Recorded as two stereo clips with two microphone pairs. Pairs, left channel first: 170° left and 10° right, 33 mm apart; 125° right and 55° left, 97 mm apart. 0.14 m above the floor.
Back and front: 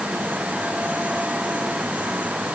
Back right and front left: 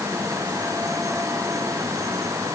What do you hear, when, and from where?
Only background noise.